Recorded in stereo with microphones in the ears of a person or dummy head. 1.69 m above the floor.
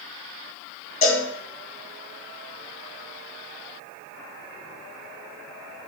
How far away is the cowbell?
About 3.5 m.